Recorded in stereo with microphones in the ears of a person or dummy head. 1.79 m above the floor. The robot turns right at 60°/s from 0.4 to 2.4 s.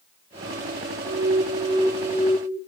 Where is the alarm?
75° right, 3.5 m; by 2.6 s 5° left, 3.5 m.